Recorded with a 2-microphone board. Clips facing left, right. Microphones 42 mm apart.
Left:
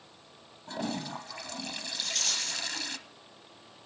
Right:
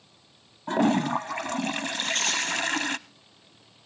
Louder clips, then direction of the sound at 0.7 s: Right 12 dB; 50° right (ahead or behind).